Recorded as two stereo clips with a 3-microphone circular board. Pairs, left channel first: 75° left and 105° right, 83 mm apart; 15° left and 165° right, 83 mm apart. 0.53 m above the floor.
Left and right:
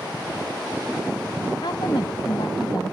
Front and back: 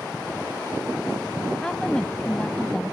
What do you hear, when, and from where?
1.6 s a woman speaking: 95° left